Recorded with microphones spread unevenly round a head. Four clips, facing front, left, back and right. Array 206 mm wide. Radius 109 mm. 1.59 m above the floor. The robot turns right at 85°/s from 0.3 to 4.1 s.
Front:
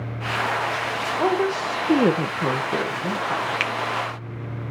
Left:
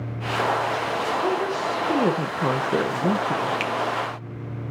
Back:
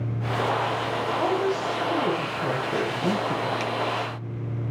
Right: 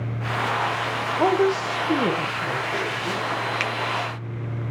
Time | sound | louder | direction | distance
1.2 | a woman speaking | right 4 dB, front 4 dB | 65° right | 2.0 m
3.6 | a finger snap | left 1 dB, front 1 dB | 45° right | 1.5 m